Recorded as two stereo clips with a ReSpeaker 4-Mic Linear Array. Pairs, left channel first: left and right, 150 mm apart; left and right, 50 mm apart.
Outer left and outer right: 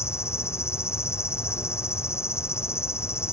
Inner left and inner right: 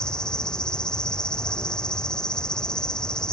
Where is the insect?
15° left (ahead or behind).